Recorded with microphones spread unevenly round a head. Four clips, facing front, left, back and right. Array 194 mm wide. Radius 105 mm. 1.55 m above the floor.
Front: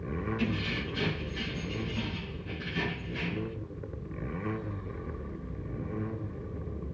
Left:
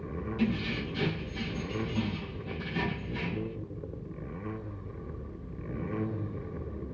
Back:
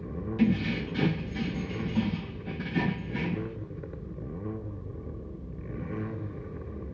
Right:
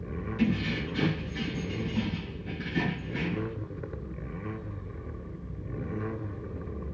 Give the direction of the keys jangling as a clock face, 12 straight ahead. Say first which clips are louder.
Right 3 dB, back 6 dB; 6 o'clock.